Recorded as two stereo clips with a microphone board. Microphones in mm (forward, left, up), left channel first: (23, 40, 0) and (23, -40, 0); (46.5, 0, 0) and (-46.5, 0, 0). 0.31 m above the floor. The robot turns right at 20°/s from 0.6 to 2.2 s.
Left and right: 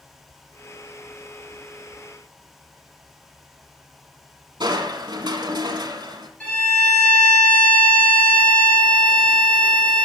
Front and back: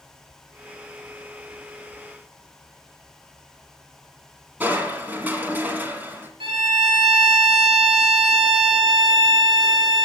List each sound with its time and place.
4.6 s crushing: 110° right, 1.4 m
6.4 s a violin: 165° left, 3.5 m